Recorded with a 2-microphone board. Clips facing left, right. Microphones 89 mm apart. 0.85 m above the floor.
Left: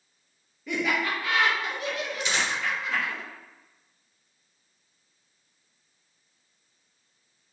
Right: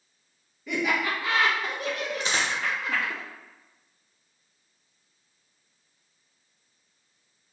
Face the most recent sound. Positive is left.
turn(degrees=-35)  # may be behind; listen again after turning